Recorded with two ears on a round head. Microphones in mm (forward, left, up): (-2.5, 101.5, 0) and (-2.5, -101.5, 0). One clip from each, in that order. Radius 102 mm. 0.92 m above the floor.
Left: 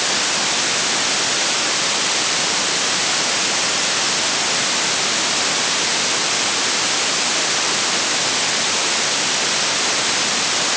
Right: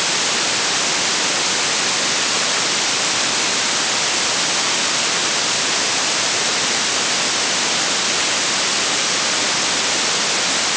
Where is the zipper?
I don't hear a zipper.